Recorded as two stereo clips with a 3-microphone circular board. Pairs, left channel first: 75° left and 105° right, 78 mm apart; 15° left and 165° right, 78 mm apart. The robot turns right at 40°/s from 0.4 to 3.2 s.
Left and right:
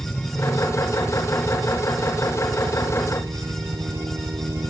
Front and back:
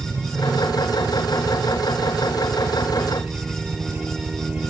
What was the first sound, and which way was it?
A helicopter, 155° left.